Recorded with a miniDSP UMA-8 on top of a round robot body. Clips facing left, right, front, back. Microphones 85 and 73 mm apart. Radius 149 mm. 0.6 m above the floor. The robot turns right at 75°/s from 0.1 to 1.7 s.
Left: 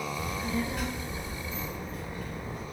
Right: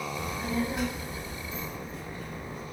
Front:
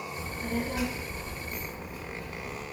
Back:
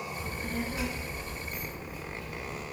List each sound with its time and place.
0.1 s a child speaking: 60° right, 0.6 m; by 2.6 s 55° left, 0.6 m